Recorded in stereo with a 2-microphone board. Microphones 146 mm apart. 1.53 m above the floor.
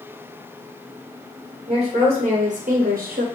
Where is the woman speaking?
40° right (ahead or behind), 1.7 m; by 3.2 s 70° right (ahead or behind), 0.7 m.